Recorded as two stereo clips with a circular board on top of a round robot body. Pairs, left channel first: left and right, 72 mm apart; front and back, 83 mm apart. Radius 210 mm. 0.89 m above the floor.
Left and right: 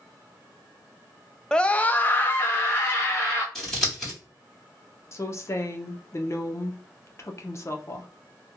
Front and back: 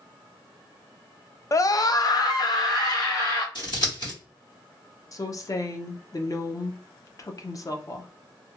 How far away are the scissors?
About 1.9 m.